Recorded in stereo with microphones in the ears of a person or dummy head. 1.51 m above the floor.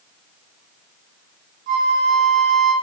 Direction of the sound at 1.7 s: 60° right (ahead or behind).